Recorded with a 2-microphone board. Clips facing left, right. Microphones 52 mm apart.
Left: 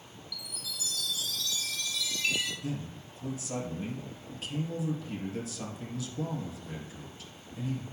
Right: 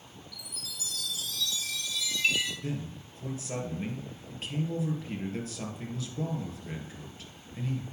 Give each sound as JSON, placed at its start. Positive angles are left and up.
{"t": 0.3, "sound": "a chime", "side_deg": -45, "distance_m": 3.5}
{"t": 2.6, "sound": "a man speaking", "side_deg": -40, "distance_m": 3.0}